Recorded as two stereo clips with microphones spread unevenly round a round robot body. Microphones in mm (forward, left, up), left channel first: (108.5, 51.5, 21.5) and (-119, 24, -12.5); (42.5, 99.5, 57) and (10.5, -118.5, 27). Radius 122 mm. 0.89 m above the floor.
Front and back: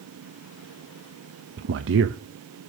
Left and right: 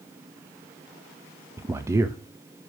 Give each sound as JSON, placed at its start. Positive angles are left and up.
{"t": 1.6, "sound": "a man speaking", "azimuth_deg": -170, "distance_m": 0.6}